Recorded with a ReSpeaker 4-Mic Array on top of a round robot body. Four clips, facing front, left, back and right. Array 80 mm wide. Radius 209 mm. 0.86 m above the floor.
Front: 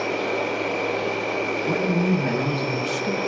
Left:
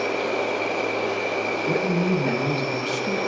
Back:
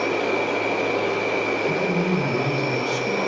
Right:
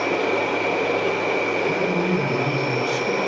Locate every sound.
0.0 s an insect: 100° right, 2.0 m
1.7 s a man speaking: 40° left, 1.4 m